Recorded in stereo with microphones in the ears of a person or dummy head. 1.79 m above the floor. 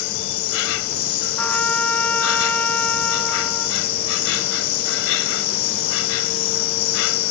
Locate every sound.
0.0 s an insect: 80° left
1.4 s a trumpet: 5° left (ahead or behind)